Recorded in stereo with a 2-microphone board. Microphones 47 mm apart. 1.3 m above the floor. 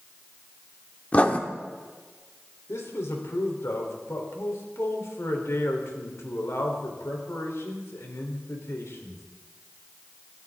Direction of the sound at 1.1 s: 30° left (ahead or behind).